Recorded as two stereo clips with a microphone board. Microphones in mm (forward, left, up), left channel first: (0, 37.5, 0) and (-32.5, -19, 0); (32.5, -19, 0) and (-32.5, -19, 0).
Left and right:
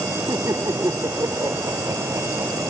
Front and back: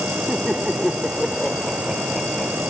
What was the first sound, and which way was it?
Laughter, 95° right.